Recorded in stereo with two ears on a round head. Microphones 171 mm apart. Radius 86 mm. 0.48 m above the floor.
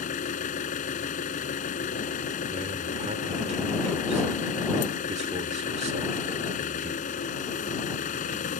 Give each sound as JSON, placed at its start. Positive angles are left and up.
{"t": 0.0, "sound": "an engine running", "side_deg": 45}
{"t": 2.5, "sound": "a man speaking", "side_deg": -35}